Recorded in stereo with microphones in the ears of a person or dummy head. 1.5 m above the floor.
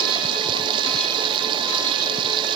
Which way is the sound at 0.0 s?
30° right (ahead or behind).